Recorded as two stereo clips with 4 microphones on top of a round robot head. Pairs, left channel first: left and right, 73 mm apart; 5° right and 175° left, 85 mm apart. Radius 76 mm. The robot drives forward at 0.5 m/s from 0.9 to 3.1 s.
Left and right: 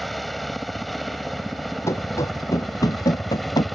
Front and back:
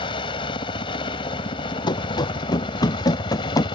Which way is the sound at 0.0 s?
Straight ahead.